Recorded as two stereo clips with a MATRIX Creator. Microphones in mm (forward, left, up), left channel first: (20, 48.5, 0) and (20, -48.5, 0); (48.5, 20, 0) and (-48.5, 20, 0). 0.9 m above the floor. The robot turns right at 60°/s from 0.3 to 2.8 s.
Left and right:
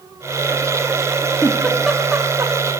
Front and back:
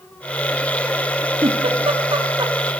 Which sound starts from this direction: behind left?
A giggle, at 1.4 s.